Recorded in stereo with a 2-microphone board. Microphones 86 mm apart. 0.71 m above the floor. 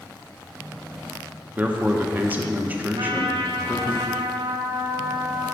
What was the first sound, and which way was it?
A man speaking, 20° right (ahead or behind).